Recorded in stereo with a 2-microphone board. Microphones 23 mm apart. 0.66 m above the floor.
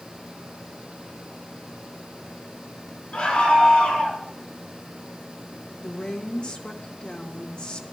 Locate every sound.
3.1 s a scream: 65° left (ahead or behind), 7.5 m
5.8 s a woman speaking: 45° left (ahead or behind), 1.9 m